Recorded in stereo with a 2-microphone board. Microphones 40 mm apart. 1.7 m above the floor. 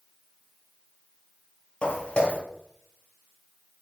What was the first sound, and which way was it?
Footsteps, 30° left (ahead or behind).